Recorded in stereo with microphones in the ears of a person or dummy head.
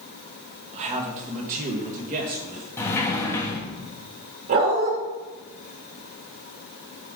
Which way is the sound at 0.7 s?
35° right (ahead or behind).